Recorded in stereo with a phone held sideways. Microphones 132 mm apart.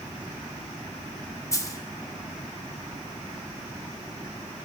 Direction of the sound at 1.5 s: 25° left (ahead or behind).